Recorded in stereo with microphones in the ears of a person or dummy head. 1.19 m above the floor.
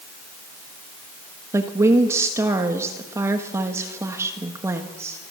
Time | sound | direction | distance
1.5 | a woman speaking | 15° right (ahead or behind) | 1.6 m